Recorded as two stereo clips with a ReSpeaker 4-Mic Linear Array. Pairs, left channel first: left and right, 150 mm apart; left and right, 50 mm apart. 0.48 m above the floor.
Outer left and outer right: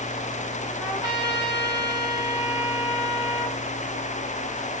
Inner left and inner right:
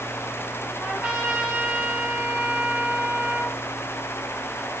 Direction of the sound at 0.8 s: 30° right (ahead or behind).